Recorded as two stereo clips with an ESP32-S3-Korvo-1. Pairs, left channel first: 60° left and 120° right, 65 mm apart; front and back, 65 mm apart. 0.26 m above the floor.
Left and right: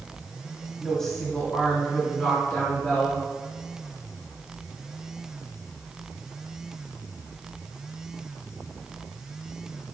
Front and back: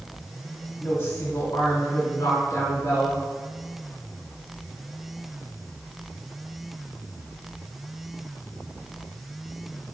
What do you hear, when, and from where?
0.8 s a woman speaking: 25° right, 1.1 m; by 3.2 s 10° right, 2.5 m